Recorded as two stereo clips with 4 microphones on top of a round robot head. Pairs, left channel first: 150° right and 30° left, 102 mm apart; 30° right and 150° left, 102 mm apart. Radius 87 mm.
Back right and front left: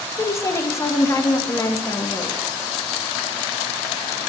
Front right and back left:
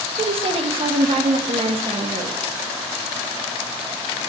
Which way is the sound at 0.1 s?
155° left.